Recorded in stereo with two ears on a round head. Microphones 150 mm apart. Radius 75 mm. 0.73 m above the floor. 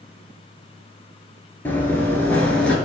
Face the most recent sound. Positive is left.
turn(degrees=5)  # may be behind; listen again after turning